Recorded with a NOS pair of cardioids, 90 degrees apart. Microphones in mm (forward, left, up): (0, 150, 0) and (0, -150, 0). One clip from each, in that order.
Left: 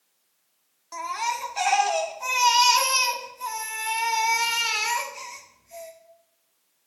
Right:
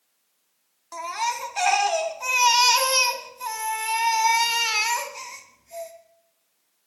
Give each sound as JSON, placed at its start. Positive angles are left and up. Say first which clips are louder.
{"t": 0.9, "sound": "a baby crying", "louder": "right 1 dB", "azimuth_deg": -20, "distance_m": 2.5}